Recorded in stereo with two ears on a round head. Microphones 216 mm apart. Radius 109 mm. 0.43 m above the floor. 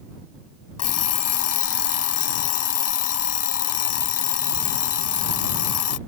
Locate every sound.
0.8 s an alarm clock: 65° left (ahead or behind)